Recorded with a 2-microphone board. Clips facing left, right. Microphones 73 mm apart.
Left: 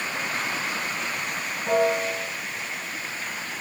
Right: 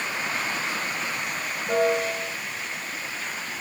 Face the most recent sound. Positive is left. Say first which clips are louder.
# left 1 dB
turn(degrees=55)  # may be behind; listen again after turning